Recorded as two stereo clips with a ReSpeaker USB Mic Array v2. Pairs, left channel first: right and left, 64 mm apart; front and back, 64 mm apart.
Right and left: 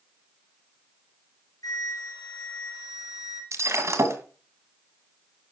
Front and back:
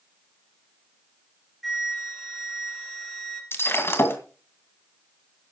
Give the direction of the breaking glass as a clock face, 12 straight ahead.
10 o'clock.